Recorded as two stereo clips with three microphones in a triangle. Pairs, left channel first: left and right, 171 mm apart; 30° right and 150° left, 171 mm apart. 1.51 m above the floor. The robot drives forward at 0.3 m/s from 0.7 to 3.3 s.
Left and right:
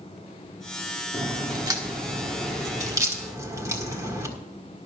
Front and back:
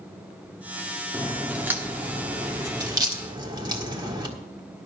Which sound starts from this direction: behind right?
A crack, at 1.1 s.